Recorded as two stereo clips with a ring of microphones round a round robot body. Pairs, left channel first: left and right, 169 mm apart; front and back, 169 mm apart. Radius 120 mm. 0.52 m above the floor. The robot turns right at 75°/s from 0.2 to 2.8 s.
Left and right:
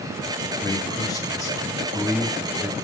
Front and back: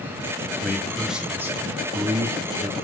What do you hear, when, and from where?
0.6 s a man speaking: 65° left, 0.7 m; by 2.7 s 135° right, 0.7 m